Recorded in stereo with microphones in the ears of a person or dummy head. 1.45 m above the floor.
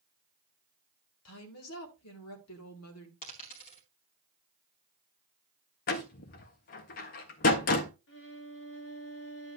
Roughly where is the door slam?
Left.